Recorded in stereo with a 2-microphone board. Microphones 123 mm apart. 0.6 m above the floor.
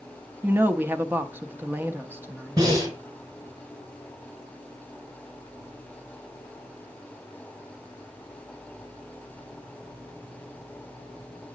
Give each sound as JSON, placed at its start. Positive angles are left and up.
{"t": 0.4, "sound": "a woman speaking", "side_deg": -15, "distance_m": 0.6}
{"t": 2.6, "sound": "breathing", "side_deg": -30, "distance_m": 4.0}